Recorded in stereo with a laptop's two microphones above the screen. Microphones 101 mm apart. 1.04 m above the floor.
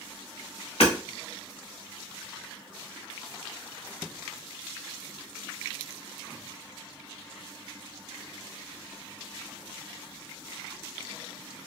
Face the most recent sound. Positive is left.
turn(degrees=75)  # may be behind; listen again after turning